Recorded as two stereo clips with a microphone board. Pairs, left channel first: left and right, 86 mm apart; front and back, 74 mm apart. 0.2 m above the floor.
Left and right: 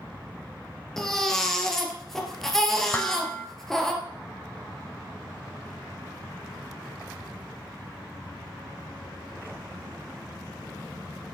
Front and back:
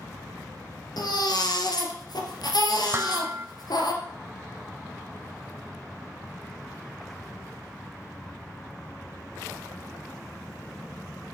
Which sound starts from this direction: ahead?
A baby crying, at 1.0 s.